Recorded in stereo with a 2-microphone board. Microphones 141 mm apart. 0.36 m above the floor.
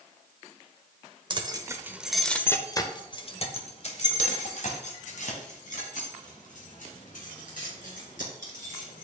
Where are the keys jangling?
35° right (ahead or behind), 0.9 m; by 9.0 s 75° left (ahead or behind), 4.5 m.